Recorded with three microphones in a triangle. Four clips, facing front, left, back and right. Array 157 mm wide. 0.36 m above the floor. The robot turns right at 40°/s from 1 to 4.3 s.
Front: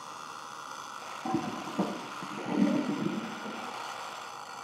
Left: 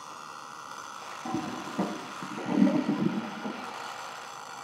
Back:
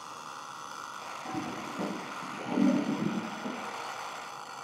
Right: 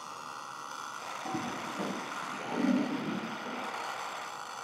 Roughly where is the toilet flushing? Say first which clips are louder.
Left 4 dB, front 5 dB; ahead.